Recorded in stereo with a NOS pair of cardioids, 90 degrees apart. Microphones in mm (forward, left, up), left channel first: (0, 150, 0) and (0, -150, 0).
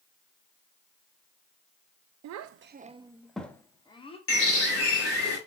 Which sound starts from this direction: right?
A child speaking, at 2.2 s.